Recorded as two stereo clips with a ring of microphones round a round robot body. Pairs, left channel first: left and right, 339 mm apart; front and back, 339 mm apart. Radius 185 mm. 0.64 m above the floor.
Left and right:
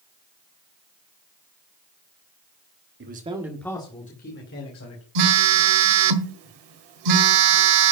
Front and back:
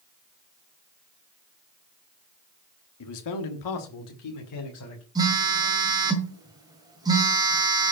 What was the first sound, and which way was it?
A man speaking, 35° right.